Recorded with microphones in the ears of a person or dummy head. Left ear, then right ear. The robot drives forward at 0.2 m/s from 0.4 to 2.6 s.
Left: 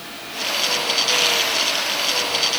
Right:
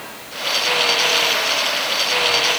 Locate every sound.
Only background noise.